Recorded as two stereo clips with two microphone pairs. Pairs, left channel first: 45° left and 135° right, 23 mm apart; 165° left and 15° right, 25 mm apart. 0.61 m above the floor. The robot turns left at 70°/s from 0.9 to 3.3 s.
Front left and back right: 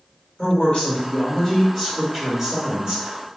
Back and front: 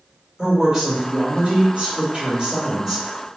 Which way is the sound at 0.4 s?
55° left.